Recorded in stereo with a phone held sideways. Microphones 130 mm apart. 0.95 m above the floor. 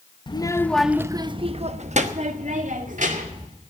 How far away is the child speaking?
About 0.9 m.